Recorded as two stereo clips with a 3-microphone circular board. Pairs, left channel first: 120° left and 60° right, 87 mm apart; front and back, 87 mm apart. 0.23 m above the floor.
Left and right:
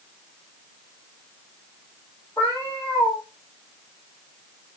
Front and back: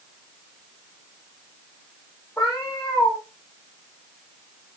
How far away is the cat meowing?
About 6 m.